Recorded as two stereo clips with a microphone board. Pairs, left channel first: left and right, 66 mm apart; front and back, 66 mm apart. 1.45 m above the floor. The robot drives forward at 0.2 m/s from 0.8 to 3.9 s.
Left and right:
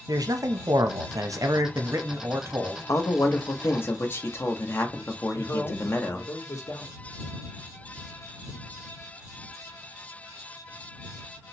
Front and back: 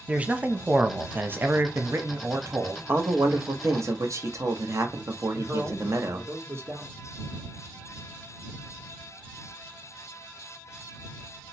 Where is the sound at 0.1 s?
110° right, 0.5 m; by 2.8 s 140° right, 0.8 m.